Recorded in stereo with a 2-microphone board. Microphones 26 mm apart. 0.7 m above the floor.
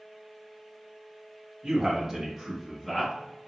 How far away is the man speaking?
About 1.0 m.